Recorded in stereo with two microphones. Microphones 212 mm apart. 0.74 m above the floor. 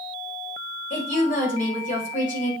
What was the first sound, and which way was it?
A woman speaking, 40° left (ahead or behind).